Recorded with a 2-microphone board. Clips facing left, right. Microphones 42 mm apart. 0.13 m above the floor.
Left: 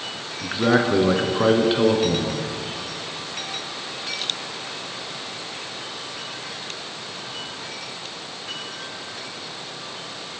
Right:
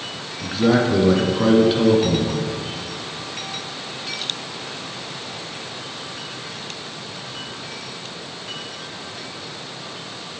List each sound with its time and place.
0.4 s a man speaking: 20° left (ahead or behind), 1.2 m